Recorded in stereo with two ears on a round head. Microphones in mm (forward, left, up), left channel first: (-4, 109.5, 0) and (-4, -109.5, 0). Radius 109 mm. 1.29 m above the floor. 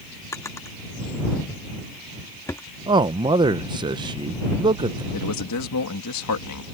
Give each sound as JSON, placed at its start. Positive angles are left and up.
{"t": 0.3, "sound": "a drawer", "side_deg": 10}
{"t": 2.9, "sound": "a man speaking", "side_deg": -20}
{"t": 5.1, "sound": "a man speaking", "side_deg": 80}